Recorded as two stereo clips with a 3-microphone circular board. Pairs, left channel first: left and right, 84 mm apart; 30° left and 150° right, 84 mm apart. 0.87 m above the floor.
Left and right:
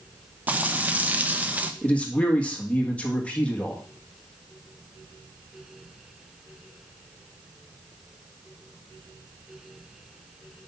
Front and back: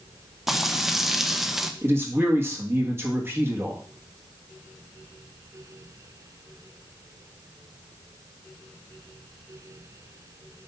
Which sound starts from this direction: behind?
A man speaking, at 1.8 s.